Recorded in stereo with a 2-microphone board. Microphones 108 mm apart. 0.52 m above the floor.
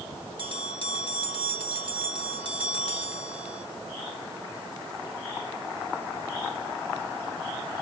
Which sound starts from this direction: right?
A bell, at 0.4 s.